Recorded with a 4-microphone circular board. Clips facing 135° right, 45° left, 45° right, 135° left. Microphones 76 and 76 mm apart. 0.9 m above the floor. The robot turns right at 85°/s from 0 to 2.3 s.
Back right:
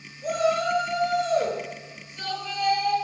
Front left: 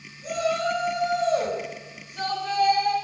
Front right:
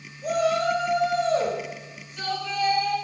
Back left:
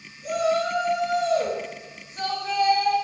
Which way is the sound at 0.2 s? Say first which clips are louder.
Back right 2 dB, front right 1 dB; 90° right.